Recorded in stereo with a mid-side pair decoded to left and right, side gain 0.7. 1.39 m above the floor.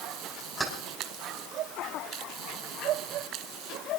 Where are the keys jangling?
20° right, 5 m.